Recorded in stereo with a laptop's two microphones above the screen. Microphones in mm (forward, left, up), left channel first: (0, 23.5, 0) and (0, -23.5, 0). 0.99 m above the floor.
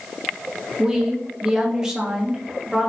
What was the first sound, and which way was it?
A woman speaking, 15° right (ahead or behind).